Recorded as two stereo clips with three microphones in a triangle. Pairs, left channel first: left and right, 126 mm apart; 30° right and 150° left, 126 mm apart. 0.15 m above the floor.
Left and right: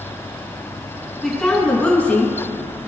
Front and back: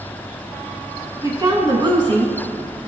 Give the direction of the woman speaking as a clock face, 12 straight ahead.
6 o'clock.